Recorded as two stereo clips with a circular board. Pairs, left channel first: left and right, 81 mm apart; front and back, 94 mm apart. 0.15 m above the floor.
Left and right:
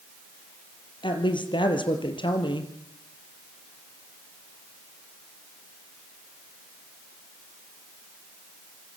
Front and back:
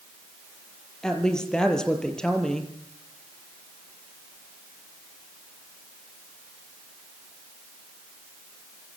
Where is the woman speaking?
85° left, 4.5 m.